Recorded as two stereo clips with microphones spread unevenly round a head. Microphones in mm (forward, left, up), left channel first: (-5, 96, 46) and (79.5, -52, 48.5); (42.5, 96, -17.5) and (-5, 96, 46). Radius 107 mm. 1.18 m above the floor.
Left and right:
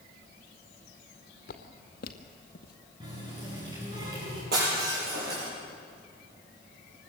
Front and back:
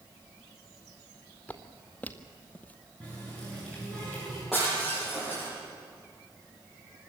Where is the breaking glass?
100° right, 8 m.